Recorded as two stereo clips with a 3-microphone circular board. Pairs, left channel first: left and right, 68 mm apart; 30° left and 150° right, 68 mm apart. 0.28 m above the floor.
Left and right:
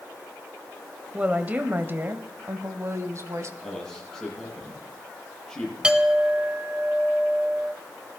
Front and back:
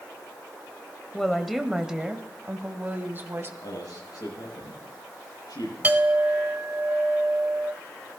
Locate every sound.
1.1 s a woman speaking: 45° right, 1.2 m; by 3.5 s 105° right, 1.8 m
3.6 s a man speaking: 10° left, 8.5 m
5.8 s a clink: 145° right, 0.8 m